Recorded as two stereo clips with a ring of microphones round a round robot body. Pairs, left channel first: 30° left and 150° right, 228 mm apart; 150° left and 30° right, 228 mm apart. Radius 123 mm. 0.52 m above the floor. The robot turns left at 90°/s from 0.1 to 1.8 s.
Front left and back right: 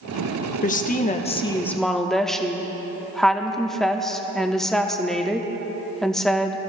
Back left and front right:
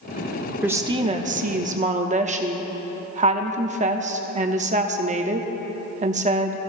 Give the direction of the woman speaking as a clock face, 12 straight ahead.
10 o'clock.